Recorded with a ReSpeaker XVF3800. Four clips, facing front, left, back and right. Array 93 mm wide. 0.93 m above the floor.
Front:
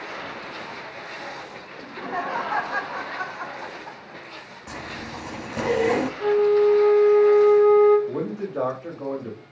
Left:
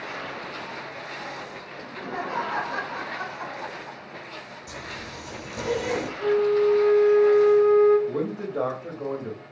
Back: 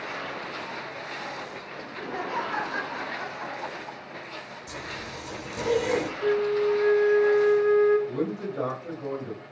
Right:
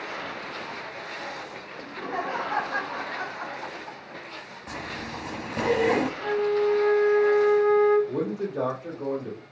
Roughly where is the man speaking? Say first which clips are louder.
Even, front 1 dB; ahead left.